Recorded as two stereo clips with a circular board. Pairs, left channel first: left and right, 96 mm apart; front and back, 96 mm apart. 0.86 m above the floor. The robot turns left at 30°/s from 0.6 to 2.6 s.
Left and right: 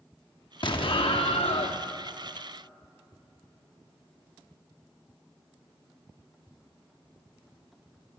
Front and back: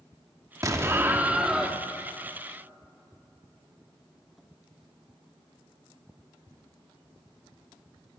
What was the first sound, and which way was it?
An explosion, 125° left.